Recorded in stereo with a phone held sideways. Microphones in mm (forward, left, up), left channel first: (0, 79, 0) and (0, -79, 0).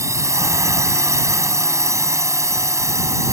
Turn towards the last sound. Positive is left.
turn(degrees=-20)  # may be behind; listen again after turning